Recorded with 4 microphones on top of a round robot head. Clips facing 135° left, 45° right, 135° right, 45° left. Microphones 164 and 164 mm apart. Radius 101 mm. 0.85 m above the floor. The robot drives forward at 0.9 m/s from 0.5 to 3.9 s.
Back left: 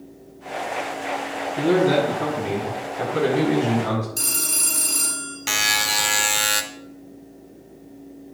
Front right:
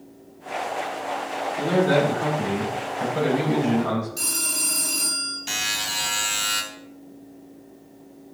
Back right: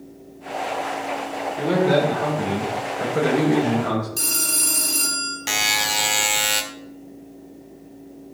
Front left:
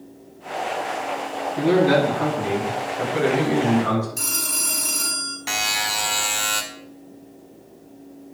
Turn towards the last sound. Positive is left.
turn(degrees=160)